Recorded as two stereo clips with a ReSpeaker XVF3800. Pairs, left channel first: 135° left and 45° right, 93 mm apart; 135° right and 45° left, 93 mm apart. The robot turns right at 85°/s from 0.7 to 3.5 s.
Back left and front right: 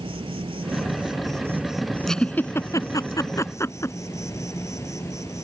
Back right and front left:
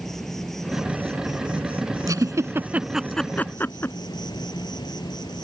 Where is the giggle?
50° left; by 4.0 s 170° left.